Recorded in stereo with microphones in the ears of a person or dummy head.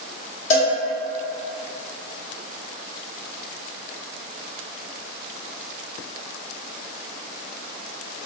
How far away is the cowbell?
About 1.3 m.